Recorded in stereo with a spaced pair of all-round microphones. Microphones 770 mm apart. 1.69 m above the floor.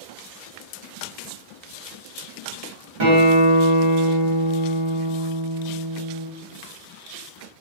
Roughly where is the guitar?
Right.